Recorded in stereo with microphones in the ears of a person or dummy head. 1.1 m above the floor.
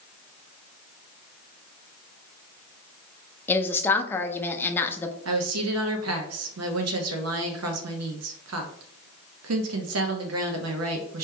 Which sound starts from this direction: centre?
A woman speaking, at 3.5 s.